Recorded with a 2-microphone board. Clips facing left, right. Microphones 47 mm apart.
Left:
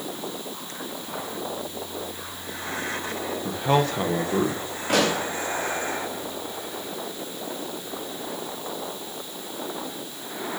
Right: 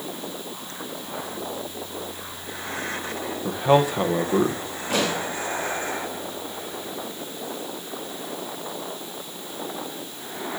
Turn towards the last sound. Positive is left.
turn(degrees=60)  # may be behind; listen again after turning